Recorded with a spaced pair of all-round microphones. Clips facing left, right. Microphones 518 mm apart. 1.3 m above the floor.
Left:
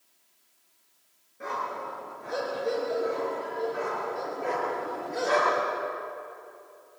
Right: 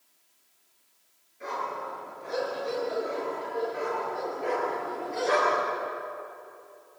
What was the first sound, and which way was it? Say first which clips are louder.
A dog barking: even; 80° left.